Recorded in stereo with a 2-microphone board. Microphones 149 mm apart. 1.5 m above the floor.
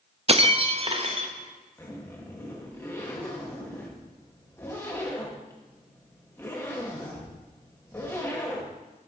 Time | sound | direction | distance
0.3 | breaking glass | 40° right (ahead or behind) | 0.9 m
1.8 | a zipper | 20° left (ahead or behind) | 2.5 m